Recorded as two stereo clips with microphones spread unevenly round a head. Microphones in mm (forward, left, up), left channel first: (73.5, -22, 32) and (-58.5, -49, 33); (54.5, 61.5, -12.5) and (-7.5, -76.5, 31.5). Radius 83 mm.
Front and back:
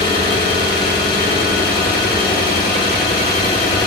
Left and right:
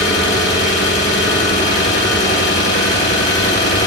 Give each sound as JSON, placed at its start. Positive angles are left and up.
{"t": 0.0, "sound": "an engine running", "azimuth_deg": 70, "distance_m": 7.0}